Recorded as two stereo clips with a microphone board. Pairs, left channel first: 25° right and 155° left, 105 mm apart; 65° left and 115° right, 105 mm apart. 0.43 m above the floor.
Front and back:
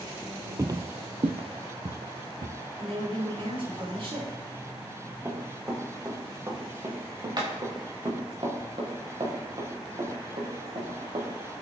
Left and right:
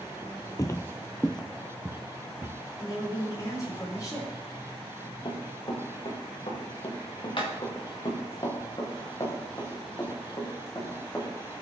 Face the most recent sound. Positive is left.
turn(degrees=135)